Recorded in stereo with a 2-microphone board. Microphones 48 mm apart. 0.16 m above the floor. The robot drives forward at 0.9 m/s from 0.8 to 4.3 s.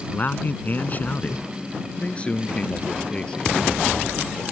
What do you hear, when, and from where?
0.1 s a man speaking: 40° left (ahead or behind); by 4.4 s 15° left (ahead or behind)